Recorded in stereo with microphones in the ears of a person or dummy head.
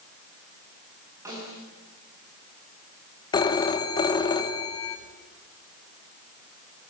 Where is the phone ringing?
30° left (ahead or behind), 1.6 m.